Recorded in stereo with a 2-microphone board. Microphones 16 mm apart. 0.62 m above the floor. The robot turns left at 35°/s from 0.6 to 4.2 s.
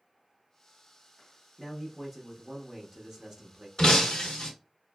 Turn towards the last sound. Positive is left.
turn(degrees=70)  # may be behind; listen again after turning